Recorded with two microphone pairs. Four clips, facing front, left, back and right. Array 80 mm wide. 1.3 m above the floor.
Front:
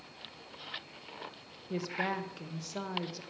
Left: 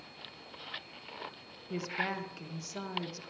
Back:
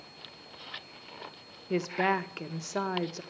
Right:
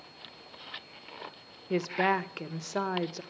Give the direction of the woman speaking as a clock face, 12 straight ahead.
4 o'clock.